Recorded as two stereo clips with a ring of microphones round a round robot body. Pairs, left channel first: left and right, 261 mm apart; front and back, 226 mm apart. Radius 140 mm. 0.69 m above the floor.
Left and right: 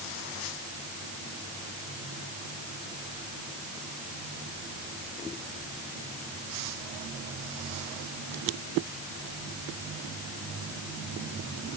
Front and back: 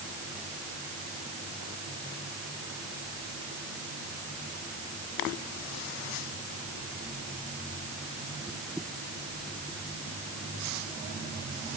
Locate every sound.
Only background noise.